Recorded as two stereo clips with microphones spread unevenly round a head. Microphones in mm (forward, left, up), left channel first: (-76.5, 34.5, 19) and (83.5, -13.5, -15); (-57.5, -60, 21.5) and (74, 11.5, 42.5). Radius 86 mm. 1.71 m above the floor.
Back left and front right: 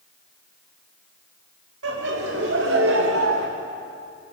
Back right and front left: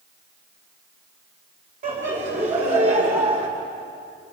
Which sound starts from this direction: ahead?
Laughter, at 1.8 s.